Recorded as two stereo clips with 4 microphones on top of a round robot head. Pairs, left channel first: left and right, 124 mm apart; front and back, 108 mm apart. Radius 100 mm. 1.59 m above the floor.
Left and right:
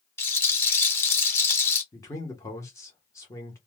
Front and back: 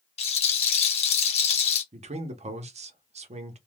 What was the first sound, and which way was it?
A rattle, 20° left.